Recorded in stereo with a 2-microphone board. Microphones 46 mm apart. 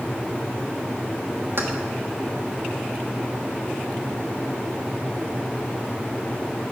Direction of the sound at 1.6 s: 60° right (ahead or behind).